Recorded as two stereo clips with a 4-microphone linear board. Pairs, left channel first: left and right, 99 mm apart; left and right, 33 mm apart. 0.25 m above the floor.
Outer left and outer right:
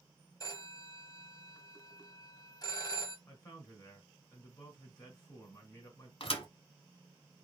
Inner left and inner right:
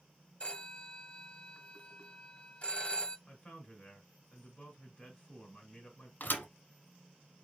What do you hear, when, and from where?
0.4 s a phone ringing: 40° left (ahead or behind), 1.0 m
3.3 s a man speaking: 30° left (ahead or behind), 2.5 m
6.2 s a thud: 65° left (ahead or behind), 1.2 m